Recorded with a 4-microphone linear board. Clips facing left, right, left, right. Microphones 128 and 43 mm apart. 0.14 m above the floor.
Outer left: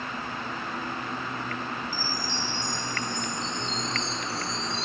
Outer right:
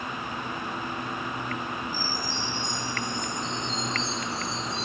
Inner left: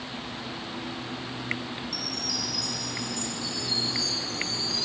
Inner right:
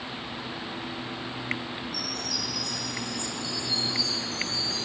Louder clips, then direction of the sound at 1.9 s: Outer right 1 dB, even; 80° left.